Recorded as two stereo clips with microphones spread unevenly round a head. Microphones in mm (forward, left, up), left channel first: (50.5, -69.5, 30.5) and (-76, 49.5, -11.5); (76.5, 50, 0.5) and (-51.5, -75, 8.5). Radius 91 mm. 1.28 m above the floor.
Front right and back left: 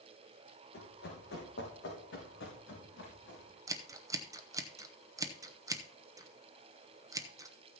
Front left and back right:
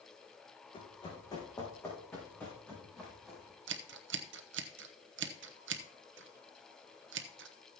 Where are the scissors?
160° right, 0.8 m.